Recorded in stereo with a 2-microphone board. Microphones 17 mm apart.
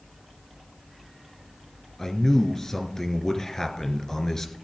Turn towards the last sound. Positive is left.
turn(degrees=30)  # may be behind; listen again after turning